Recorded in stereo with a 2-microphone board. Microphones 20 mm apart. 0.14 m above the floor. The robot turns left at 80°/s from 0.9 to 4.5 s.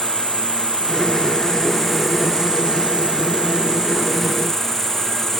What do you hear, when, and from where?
0.0 s an insect: 90° left, 4.5 m; by 5.4 s 165° left, 4.5 m